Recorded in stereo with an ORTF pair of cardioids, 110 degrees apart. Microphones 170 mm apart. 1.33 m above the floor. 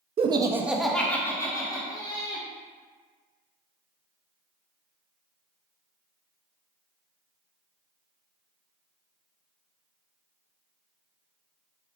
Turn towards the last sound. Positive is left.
turn(degrees=30)